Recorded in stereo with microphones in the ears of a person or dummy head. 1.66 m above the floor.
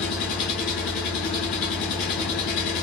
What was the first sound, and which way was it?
An engine running, 45° left (ahead or behind).